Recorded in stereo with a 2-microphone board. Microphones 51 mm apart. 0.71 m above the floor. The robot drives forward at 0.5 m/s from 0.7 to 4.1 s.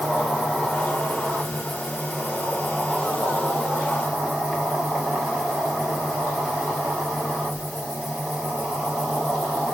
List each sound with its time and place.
0.0 s an insect: 5° left (ahead or behind), 3.5 m